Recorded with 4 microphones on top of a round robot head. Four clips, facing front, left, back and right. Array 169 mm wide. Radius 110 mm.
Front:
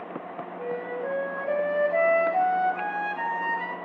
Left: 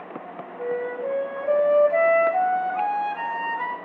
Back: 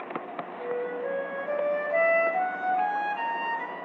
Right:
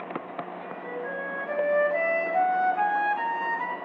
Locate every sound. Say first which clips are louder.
0.6 s a flute: left 8 dB, even; 70° left, 8 m